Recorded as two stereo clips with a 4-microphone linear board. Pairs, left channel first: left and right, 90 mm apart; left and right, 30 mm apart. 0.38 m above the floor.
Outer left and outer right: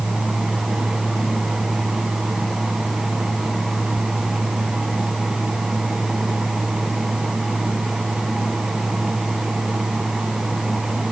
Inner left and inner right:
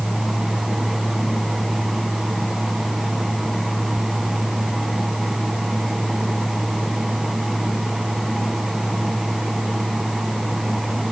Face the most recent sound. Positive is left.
No sound to turn to.